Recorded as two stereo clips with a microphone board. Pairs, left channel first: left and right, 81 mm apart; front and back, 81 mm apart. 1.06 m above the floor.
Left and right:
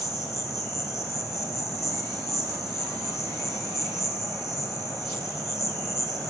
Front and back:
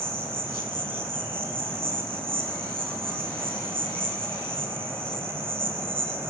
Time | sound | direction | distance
0.0 | an insect | 130° left | 1.5 m